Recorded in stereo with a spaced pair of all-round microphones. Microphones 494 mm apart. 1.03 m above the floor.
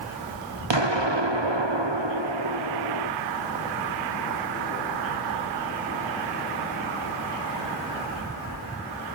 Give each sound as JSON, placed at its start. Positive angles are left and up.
{"t": 0.7, "sound": "an explosion", "side_deg": -65, "distance_m": 0.7}